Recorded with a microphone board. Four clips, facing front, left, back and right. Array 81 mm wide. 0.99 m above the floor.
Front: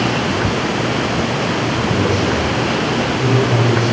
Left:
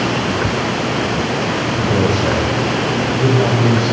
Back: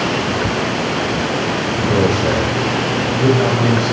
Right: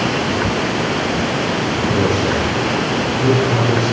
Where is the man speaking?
145° left, 3.5 m; by 3.9 s 140° left, 5.5 m.